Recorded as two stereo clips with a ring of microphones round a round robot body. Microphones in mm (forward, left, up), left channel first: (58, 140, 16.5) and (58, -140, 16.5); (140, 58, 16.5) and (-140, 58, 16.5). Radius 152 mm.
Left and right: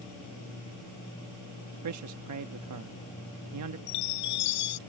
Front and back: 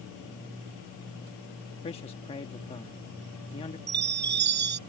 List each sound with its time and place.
1.8 s a man speaking: 70° right
3.9 s a chime: 125° left